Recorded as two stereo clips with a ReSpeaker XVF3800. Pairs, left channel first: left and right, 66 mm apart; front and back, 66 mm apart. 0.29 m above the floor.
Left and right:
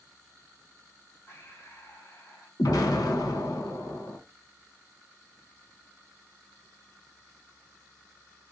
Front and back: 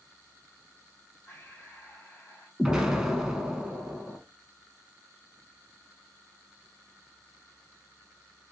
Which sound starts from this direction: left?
An explosion, at 2.6 s.